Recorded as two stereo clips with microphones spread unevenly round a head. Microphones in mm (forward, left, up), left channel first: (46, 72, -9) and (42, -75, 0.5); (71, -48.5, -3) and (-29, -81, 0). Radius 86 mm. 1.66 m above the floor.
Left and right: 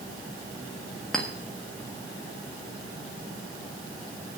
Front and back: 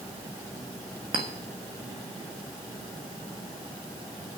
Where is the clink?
Straight behind, 1.3 m.